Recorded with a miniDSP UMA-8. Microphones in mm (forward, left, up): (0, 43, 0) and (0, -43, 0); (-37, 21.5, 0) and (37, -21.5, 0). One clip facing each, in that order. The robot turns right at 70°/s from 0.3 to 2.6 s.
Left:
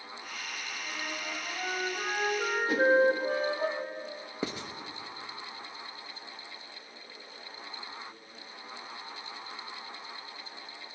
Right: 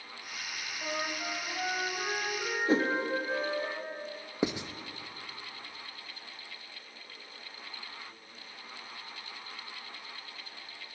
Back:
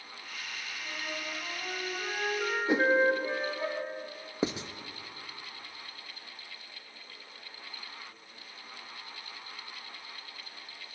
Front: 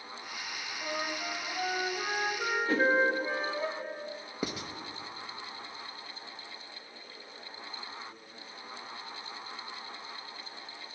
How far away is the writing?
About 0.7 m.